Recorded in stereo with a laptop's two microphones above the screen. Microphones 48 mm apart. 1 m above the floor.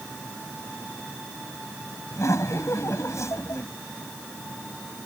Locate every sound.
2.1 s laughter: 80° left